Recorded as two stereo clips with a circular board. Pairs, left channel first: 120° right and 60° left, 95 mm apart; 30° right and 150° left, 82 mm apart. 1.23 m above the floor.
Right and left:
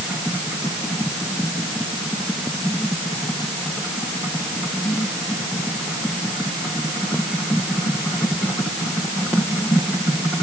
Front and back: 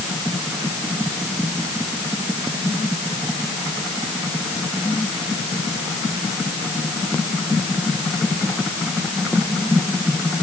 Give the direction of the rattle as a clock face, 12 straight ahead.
No rattle in this recording.